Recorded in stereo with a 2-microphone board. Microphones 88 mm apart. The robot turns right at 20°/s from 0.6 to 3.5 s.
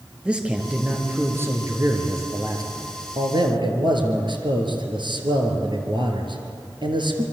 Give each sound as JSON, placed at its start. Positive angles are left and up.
{"t": 0.2, "sound": "a man speaking", "azimuth_deg": -165, "distance_m": 4.0}